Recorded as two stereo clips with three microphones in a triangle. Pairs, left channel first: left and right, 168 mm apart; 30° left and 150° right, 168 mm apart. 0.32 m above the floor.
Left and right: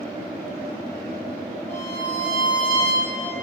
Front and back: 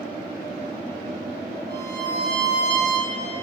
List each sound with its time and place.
1.7 s a violin: 60° left, 9.5 m